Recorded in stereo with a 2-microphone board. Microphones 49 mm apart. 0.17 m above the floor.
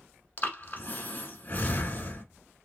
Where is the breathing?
35° left (ahead or behind), 1.2 m.